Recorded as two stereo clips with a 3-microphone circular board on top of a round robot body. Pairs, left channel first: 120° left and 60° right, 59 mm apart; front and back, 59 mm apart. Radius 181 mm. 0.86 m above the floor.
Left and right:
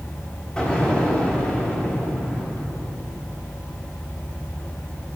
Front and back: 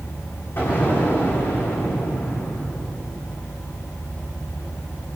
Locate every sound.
0.6 s an explosion: 45° left, 4 m